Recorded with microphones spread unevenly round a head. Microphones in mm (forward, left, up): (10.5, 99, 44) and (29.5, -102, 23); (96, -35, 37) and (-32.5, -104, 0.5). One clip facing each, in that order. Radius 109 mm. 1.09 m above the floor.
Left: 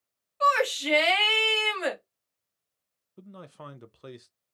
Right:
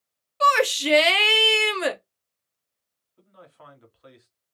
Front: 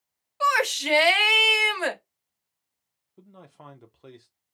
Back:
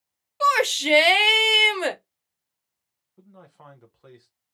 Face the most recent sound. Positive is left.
turn(degrees=105)